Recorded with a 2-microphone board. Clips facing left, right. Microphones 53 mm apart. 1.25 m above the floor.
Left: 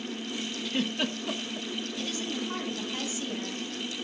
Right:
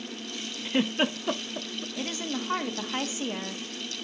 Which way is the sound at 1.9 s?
45° right (ahead or behind).